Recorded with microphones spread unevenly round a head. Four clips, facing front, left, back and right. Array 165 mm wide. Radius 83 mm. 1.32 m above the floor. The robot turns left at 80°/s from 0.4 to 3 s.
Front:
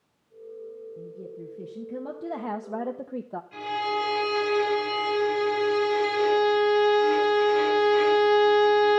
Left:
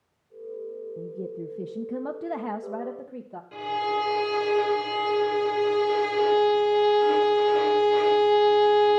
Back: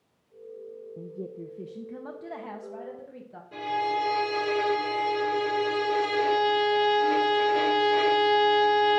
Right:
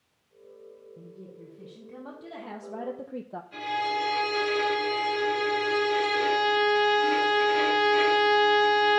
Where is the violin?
130° left, 5 m.